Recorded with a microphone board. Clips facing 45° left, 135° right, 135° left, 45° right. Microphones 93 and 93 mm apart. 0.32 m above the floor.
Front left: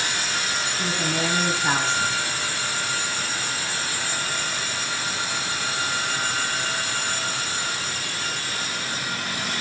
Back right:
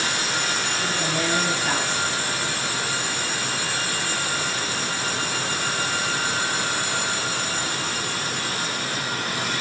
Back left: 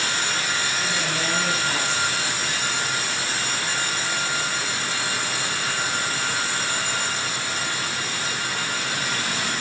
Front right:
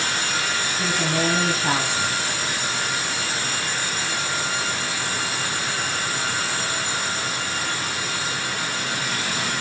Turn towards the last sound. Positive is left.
turn(degrees=-20)